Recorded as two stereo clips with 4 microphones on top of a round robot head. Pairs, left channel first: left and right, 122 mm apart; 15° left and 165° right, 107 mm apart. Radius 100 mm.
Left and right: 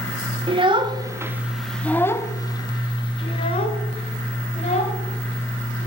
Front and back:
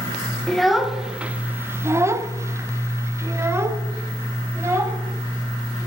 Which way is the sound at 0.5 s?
75° right.